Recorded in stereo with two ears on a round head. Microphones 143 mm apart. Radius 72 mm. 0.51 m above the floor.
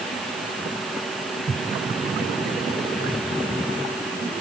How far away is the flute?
I don't hear a flute.